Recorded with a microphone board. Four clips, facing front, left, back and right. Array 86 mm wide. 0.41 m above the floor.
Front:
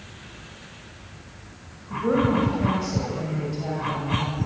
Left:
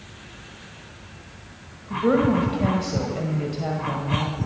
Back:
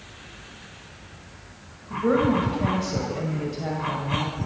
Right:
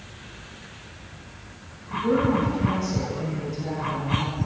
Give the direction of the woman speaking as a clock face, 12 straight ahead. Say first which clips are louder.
Left 2 dB, back 1 dB; 9 o'clock.